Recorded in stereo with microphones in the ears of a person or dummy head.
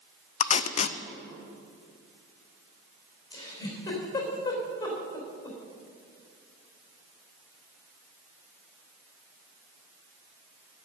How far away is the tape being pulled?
About 0.6 m.